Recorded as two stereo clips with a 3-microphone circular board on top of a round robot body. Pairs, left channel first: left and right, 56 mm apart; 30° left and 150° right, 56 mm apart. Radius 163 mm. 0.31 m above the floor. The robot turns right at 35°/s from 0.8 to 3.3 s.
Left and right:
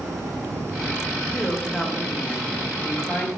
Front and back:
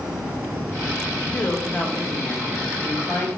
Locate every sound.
1.3 s a woman speaking: 10° right, 1.7 m; by 3.3 s 60° left, 1.7 m